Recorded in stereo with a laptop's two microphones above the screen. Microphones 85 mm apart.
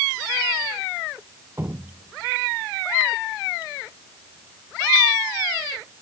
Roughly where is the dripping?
Right.